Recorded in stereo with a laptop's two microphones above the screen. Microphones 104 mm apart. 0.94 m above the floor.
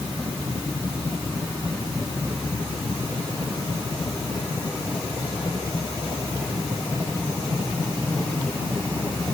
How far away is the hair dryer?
I don't hear a hair dryer.